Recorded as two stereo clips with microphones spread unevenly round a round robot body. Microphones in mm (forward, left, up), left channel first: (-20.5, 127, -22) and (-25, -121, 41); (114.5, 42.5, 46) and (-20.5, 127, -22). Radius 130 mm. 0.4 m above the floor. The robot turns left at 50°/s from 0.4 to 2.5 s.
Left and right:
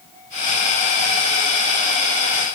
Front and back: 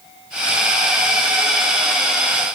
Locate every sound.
Only background noise.